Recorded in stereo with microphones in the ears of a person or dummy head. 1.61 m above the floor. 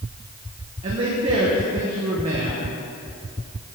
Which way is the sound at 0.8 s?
30° right (ahead or behind).